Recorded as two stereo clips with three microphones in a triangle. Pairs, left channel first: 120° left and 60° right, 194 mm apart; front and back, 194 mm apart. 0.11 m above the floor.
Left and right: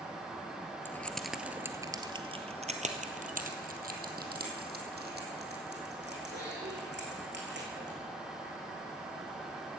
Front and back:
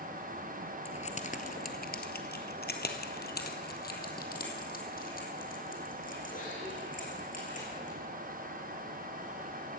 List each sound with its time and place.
0.8 s keys jangling: 45° left, 1.3 m; by 8.0 s 45° right, 5 m